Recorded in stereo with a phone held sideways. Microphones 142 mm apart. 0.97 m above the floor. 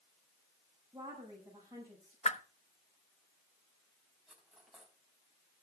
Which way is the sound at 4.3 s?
5° right (ahead or behind).